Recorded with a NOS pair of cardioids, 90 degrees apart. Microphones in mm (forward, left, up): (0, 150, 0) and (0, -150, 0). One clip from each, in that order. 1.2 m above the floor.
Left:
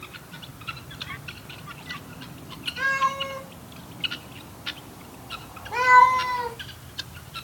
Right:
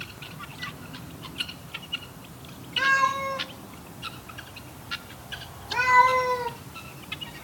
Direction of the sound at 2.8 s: 30° right.